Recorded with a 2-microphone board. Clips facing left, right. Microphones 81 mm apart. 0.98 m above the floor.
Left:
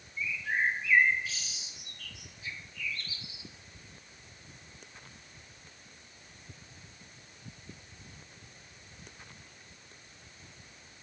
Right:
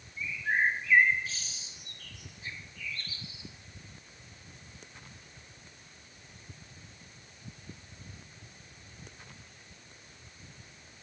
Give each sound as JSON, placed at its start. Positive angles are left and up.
{"t": 0.2, "sound": "a bird", "side_deg": -40, "distance_m": 0.9}